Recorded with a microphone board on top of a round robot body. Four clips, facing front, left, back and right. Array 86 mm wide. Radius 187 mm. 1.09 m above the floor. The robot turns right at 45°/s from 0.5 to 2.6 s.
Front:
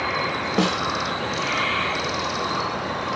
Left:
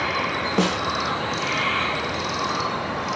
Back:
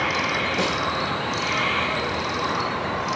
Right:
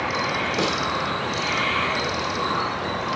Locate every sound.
0.6 s a snare drum: 45° left, 3 m; by 0.8 s 55° left, 3 m